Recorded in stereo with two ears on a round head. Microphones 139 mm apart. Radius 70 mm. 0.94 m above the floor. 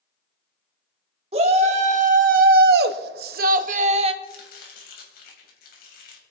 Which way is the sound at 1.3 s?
40° right (ahead or behind).